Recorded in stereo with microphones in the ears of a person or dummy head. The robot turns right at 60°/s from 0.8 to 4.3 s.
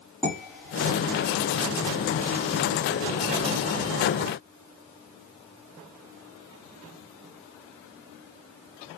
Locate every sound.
0.2 s dishes clattering: 10° left (ahead or behind), 1.9 m; by 1.0 s centre (ahead or behind), 1.9 m